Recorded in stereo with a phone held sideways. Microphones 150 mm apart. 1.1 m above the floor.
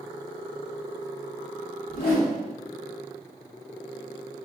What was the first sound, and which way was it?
A whoosh, 80° left.